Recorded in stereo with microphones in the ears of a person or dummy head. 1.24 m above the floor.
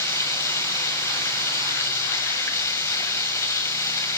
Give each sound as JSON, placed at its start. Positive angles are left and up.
{"t": 0.0, "sound": "running water", "side_deg": 15, "distance_m": 1.4}